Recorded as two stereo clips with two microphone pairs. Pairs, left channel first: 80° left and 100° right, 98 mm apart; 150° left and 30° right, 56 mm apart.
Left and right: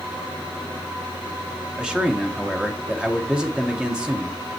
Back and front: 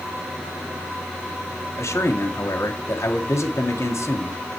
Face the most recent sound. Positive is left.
turn(degrees=180)